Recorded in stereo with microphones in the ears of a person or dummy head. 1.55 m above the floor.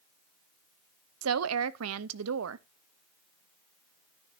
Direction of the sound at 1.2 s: 90° right.